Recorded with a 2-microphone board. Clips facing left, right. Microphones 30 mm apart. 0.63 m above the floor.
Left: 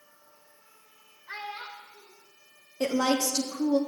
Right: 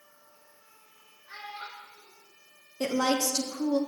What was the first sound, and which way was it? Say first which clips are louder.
A child speaking: left 3 dB; 60° left (ahead or behind).